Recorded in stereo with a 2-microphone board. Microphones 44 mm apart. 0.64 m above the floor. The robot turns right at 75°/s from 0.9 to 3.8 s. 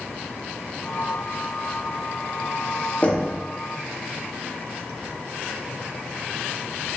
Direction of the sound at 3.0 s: 30° left (ahead or behind).